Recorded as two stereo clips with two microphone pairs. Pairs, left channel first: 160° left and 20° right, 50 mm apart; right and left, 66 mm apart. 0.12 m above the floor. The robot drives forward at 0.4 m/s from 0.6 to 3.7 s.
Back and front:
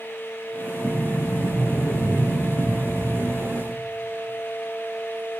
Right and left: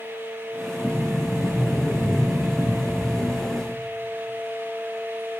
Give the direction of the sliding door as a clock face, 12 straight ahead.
7 o'clock.